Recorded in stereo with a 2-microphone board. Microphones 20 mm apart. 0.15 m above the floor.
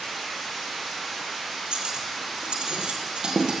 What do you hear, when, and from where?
1.7 s cutlery clinking: 70° right (ahead or behind), 2 m